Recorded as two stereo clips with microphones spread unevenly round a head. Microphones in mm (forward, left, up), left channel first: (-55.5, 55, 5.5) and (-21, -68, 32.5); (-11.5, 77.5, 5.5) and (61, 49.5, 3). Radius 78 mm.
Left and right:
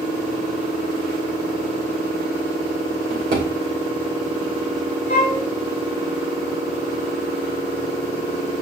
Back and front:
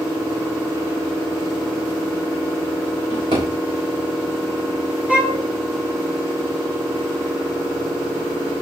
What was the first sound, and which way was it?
A drawer, 45° right.